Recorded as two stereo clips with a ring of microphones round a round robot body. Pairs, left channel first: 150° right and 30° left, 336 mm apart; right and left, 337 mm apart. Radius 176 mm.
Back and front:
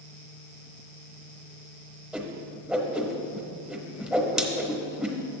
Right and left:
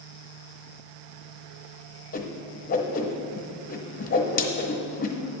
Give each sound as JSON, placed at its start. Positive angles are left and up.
{"t": 2.1, "sound": "a whoosh", "azimuth_deg": -55, "distance_m": 0.9}